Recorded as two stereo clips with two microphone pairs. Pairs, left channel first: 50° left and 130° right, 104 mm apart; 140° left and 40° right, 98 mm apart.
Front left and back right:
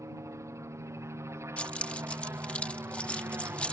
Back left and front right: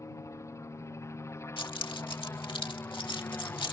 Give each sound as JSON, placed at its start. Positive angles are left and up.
{"t": 0.0, "sound": "a helicopter", "azimuth_deg": -175}
{"t": 1.6, "sound": "keys jangling", "azimuth_deg": 130}